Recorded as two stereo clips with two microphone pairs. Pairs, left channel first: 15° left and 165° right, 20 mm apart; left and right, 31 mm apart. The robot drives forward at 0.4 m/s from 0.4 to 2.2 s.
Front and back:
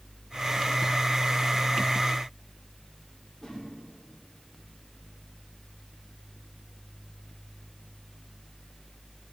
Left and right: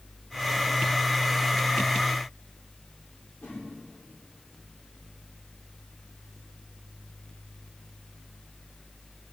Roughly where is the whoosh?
Left.